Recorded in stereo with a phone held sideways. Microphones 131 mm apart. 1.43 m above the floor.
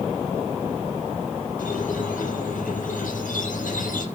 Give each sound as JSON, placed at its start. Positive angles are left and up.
{"t": 1.6, "sound": "a squeak", "side_deg": 85, "distance_m": 6.5}